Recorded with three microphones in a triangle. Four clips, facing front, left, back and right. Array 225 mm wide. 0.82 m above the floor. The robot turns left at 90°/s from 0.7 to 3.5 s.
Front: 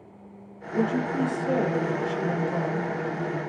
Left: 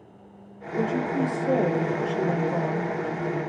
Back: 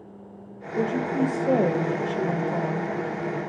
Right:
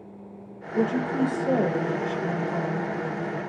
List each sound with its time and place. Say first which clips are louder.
0.7 s a woman speaking: right 1 dB, back 1 dB; 80° right, 1.1 m; by 2.9 s 85° left, 1.1 m